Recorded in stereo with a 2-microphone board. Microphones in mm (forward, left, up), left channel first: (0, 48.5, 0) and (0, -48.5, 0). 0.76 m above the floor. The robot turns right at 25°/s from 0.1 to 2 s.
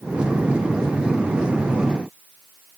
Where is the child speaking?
No child speaking in this recording.